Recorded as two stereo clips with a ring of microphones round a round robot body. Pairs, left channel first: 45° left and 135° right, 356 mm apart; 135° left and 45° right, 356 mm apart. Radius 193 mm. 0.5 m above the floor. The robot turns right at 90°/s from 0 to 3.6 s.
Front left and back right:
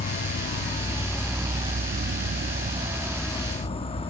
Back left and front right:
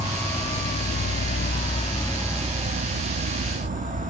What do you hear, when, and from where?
0.0 s an insect: 25° left, 0.9 m; by 4.1 s 10° right, 0.9 m